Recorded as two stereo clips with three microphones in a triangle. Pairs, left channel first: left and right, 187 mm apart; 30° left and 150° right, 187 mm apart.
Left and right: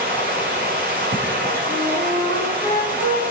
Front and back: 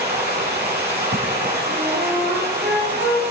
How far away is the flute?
About 2.5 m.